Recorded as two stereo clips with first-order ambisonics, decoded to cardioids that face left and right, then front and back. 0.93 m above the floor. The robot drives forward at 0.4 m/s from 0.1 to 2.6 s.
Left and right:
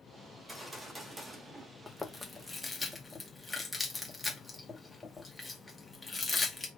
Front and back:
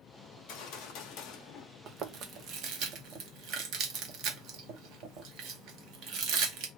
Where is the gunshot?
10° right, 1.1 m; by 1.7 s 20° right, 0.7 m.